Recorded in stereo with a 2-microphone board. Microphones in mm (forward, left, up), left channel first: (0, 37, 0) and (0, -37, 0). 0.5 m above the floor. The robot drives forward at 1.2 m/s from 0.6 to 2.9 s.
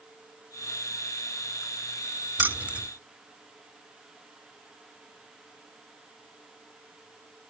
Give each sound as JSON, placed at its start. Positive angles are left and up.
{"t": 2.4, "sound": "keys jangling", "side_deg": -25, "distance_m": 0.5}